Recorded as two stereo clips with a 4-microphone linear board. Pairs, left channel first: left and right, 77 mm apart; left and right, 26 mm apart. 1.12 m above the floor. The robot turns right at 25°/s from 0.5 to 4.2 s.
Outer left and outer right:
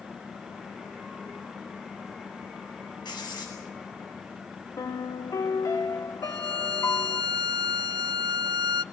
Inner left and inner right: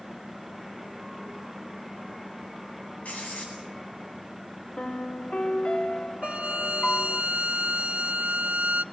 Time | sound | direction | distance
3.0 | writing | 75° left (ahead or behind) | 8.5 m
4.8 | a piano | 45° left (ahead or behind) | 1.4 m
6.2 | a violin | 65° right (ahead or behind) | 0.6 m